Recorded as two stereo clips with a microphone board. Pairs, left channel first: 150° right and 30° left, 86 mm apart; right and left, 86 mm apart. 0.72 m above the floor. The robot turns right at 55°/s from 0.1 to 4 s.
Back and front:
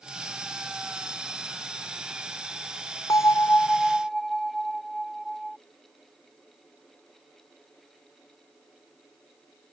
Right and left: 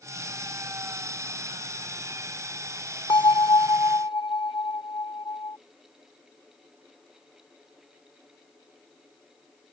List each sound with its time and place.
3.1 s a bell: 110° right; by 5.6 s 60° right